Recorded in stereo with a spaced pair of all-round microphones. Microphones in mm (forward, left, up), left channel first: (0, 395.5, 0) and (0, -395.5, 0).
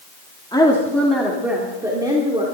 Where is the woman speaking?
5° left (ahead or behind), 2 m; by 2.4 s 5° right (ahead or behind), 3 m.